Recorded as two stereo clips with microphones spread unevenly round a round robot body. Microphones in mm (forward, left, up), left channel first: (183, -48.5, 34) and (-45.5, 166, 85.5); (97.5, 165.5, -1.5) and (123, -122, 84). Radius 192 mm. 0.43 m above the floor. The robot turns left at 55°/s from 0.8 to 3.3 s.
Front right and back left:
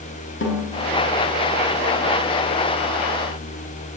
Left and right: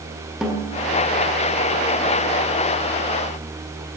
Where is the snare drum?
5° left, 3.5 m.